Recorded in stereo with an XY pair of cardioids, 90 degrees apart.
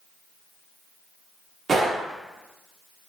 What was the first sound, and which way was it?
A gunshot, 55° right.